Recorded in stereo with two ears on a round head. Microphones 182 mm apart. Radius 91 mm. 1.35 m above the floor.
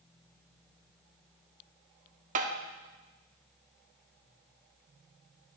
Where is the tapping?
40° right (ahead or behind), 0.7 m.